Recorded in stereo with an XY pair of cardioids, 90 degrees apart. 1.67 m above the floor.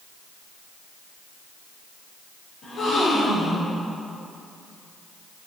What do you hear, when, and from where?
2.6 s a gasp: 70° left, 5.5 m